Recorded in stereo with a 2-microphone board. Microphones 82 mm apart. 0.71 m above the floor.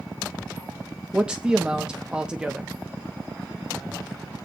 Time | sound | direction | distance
1.1 | a man speaking | 10° right (ahead or behind) | 0.8 m